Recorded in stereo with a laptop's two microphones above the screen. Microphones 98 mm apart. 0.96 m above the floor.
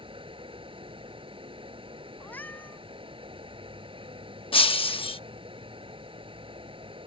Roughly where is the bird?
I don't hear a bird.